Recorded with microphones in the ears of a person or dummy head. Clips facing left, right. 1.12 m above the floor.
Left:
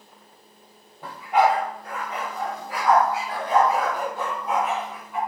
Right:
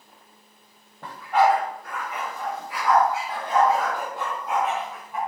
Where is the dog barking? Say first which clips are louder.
Even; 5° left (ahead or behind), 1.2 m; by 5.2 s 65° left (ahead or behind), 2.5 m.